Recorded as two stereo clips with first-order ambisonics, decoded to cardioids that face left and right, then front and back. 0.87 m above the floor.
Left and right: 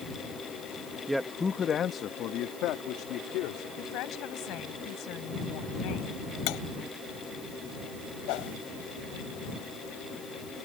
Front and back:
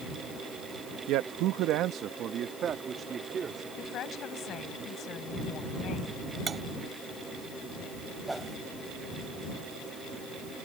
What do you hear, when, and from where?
1.1 s a man speaking: 170° right; by 3.7 s 115° left
3.8 s a woman speaking: 55° left
6.5 s cutlery clinking: 110° left
8.3 s a whoosh: 100° left